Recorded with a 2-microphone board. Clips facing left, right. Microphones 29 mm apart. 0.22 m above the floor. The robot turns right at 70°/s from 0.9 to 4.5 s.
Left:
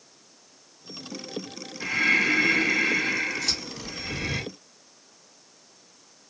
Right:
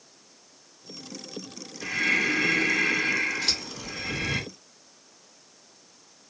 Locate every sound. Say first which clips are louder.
1.8 s breathing: left 2 dB; 105° left, 1.5 m; by 4.4 s 70° right, 1.5 m
3.4 s scissors: right 1 dB; 40° right (ahead or behind), 2 m; by 3.6 s 50° right (ahead or behind), 2 m